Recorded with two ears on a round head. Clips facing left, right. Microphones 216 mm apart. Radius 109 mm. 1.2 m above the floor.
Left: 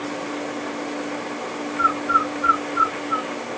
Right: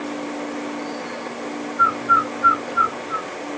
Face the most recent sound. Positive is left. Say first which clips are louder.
# left 1 dB
turn(degrees=-60)  # may be behind; listen again after turning